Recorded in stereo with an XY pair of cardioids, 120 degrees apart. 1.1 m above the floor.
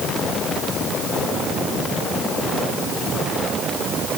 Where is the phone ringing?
I don't hear a phone ringing.